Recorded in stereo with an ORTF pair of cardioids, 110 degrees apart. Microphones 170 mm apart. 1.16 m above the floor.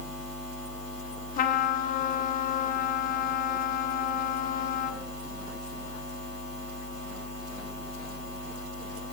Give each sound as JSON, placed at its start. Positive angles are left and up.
{"t": 1.4, "sound": "a trumpet", "azimuth_deg": 60, "distance_m": 3.0}